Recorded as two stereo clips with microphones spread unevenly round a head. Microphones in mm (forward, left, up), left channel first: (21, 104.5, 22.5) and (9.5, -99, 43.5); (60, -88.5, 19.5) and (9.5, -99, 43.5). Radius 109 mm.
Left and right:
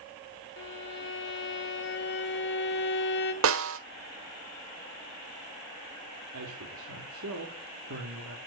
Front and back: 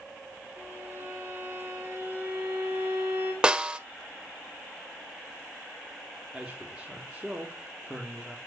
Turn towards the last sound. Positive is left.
turn(degrees=-90)